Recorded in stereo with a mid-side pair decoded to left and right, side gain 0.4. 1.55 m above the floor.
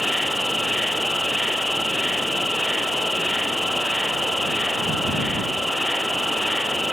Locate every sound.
0.0 s an insect: 5° left